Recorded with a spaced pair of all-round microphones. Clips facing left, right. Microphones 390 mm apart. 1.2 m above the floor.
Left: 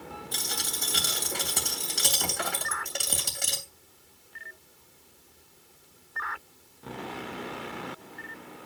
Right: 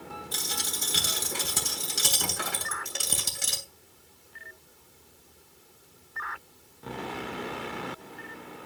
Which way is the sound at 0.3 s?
20° right (ahead or behind).